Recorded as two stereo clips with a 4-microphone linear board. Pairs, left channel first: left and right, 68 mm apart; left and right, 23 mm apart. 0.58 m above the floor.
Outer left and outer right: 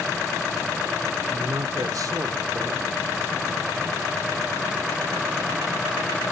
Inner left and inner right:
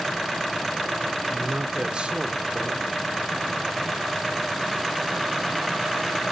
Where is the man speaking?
55° right (ahead or behind), 1.4 m.